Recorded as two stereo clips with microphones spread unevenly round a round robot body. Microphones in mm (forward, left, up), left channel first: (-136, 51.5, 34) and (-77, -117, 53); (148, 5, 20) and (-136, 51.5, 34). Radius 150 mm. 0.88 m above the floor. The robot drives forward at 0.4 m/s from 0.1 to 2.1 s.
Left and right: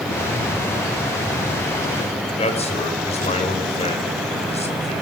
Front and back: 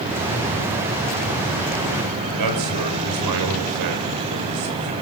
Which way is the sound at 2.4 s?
165° left.